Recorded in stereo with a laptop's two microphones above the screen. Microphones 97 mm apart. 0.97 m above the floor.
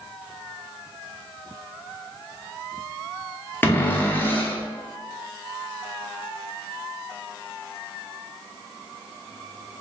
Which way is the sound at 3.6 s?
20° left (ahead or behind).